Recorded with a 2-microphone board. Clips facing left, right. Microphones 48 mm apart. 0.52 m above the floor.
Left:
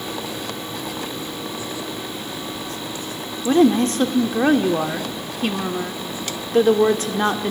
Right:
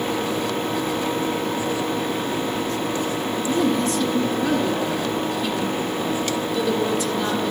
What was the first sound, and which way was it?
A woman speaking, 45° left (ahead or behind).